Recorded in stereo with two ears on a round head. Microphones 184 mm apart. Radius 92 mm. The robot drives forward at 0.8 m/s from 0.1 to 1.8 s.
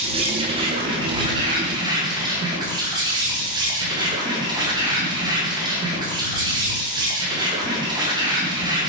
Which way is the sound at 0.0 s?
30° right (ahead or behind).